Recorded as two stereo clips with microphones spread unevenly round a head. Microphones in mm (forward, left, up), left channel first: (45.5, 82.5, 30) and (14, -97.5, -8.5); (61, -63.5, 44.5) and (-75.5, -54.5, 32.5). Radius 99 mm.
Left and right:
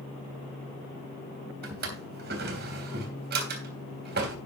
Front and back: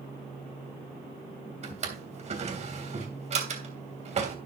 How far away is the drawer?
About 3 m.